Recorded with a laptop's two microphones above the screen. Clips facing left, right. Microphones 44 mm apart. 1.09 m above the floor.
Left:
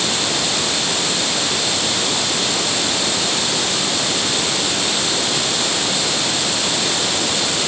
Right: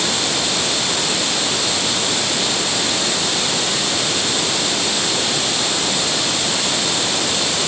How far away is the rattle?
I don't hear a rattle.